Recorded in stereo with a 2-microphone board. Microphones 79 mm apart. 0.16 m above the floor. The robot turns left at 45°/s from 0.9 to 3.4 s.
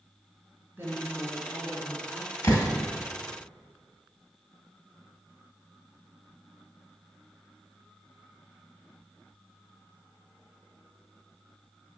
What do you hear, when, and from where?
0.8 s a woman speaking: 140° right, 2 m; by 2.3 s 155° left, 2 m
2.4 s a door slam: 50° left (ahead or behind), 1.9 m; by 2.7 s 40° left (ahead or behind), 1.9 m